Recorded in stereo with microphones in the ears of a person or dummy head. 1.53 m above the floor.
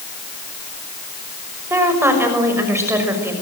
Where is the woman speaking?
15° right (ahead or behind), 6 m.